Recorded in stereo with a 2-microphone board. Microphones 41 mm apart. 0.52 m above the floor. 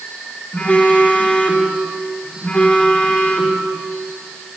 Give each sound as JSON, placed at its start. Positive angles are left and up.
{"t": 0.5, "sound": "a phone buzzing", "side_deg": 30, "distance_m": 1.4}